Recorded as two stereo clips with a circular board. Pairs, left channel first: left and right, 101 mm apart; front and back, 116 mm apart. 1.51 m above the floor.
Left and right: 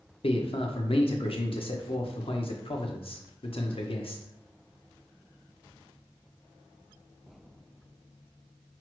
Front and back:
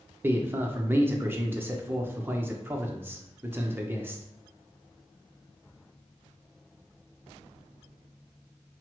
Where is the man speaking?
110° left, 0.6 m.